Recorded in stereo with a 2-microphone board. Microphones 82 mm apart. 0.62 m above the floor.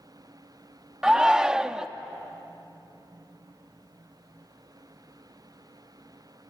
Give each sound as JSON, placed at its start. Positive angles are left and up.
{"t": 1.0, "sound": "a shout", "side_deg": -10, "distance_m": 0.6}